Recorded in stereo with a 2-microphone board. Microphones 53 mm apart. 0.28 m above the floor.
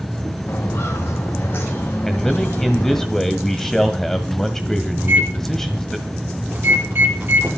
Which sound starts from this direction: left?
Footsteps, at 0.5 s.